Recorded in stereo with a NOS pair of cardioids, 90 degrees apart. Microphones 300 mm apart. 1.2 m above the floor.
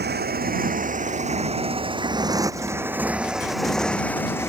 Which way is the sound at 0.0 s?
35° right.